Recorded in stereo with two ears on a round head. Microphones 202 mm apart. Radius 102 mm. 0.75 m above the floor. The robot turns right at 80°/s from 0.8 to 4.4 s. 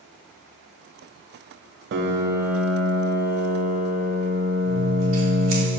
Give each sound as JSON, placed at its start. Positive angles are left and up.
{"t": 1.9, "sound": "a piano", "azimuth_deg": -55, "distance_m": 0.7}
{"t": 4.7, "sound": "scissors", "side_deg": -65, "distance_m": 2.5}